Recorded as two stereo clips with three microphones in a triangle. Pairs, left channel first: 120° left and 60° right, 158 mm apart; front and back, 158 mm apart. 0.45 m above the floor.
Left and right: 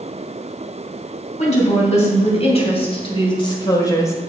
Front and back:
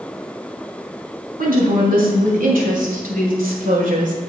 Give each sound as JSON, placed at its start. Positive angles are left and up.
{"t": 1.4, "sound": "a woman speaking", "azimuth_deg": 160, "distance_m": 3.5}